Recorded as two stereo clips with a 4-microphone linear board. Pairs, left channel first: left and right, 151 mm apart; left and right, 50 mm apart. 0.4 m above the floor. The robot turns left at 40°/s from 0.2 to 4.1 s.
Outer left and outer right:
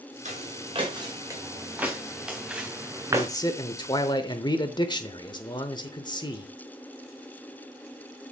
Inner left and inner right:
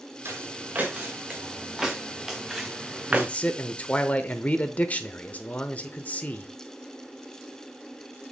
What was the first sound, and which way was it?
Footsteps, 50° right (ahead or behind).